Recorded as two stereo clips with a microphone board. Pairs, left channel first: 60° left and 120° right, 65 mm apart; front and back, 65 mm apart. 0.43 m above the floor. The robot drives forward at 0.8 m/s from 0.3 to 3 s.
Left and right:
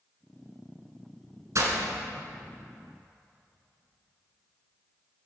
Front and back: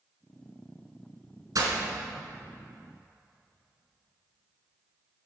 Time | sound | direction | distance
1.6 | breaking glass | 155° right | 1.9 m